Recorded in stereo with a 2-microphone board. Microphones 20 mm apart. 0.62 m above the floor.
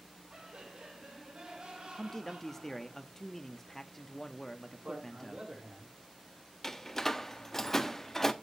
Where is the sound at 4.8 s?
60° right (ahead or behind), 7 m.